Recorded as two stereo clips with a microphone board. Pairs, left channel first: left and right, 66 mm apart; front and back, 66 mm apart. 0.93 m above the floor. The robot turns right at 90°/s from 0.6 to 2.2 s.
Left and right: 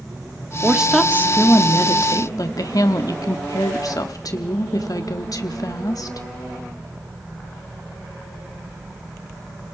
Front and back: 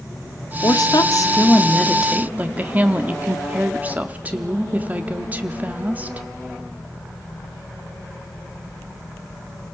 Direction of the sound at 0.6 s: 25° right.